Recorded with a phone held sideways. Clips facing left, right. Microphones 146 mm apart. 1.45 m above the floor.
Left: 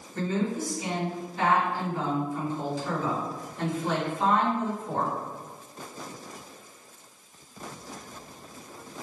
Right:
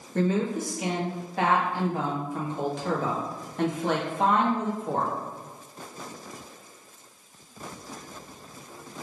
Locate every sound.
0.1 s a woman speaking: 70° right (ahead or behind), 1.3 m